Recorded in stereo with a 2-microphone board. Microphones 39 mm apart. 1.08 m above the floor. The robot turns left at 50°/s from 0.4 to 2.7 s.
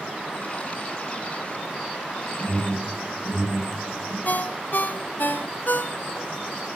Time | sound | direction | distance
2.4 | an alarm | 85° right | 5 m
4.2 | a ringtone | 60° left (ahead or behind) | 0.7 m